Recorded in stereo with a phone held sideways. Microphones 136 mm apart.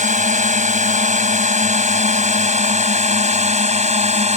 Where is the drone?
60° right (ahead or behind); by 4.4 s 55° right (ahead or behind).